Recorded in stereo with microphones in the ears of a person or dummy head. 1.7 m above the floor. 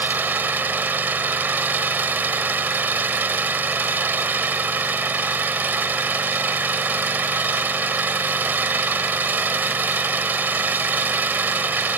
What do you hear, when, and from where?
0.0 s an engine running: 10° right (ahead or behind)